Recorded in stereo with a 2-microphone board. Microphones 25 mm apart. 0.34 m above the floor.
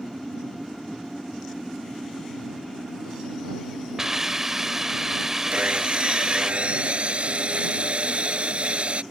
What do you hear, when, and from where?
4.0 s a hiss: 20° right (ahead or behind)
5.5 s sawing: 55° right (ahead or behind)